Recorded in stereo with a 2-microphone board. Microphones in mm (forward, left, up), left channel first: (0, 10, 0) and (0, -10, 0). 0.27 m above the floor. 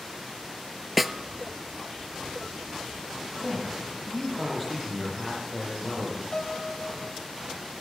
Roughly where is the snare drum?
Centre.